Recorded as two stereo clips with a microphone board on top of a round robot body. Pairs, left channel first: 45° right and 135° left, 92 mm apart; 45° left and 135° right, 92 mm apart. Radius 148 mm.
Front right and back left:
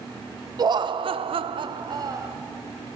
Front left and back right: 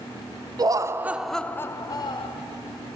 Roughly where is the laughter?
Behind.